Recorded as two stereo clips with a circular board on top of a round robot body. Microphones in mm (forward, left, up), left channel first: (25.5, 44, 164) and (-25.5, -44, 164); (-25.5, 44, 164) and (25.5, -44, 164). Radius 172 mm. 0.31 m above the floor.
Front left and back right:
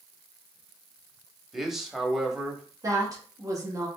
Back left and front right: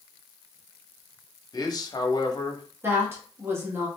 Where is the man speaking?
155° left, 1.1 m.